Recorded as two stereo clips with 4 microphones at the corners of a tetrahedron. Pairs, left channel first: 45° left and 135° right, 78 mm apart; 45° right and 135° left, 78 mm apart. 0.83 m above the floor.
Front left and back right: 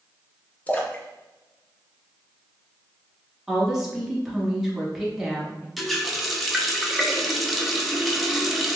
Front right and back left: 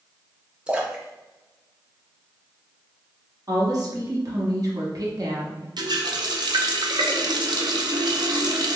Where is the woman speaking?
140° left, 1.3 m.